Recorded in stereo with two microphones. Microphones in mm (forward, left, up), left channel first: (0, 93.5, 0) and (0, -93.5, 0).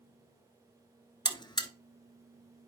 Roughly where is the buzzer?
Left.